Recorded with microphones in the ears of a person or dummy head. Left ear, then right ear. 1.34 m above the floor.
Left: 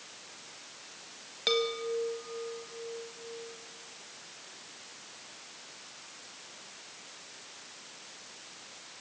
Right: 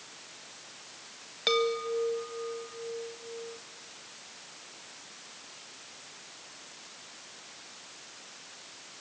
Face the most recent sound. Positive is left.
turn(degrees=-15)  # may be behind; listen again after turning